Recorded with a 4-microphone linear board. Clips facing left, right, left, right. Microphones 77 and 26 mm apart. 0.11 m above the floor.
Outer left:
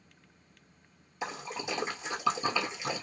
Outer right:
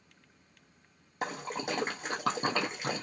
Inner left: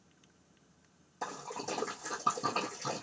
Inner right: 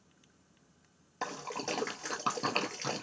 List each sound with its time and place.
1.2 s a splash: 55° right (ahead or behind), 0.8 m